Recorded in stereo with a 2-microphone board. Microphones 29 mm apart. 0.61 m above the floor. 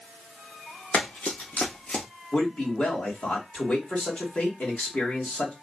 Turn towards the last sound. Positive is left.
turn(degrees=55)  # may be behind; listen again after turning